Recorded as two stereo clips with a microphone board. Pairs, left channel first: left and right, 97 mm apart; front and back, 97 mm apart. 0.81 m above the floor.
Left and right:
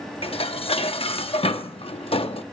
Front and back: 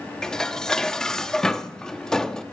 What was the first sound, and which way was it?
Dishes clattering, 85° left.